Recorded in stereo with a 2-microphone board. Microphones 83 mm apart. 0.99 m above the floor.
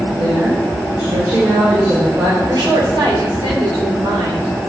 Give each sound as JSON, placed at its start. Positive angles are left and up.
{"t": 0.2, "sound": "a woman speaking", "side_deg": -45, "distance_m": 3.0}
{"t": 2.5, "sound": "a woman speaking", "side_deg": -60, "distance_m": 4.0}